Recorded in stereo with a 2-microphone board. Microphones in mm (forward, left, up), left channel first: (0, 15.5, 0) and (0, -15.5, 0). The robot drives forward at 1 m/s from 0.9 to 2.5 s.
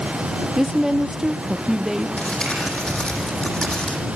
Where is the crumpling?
35° left (ahead or behind), 4 m; by 4.0 s 30° left (ahead or behind), 4.5 m.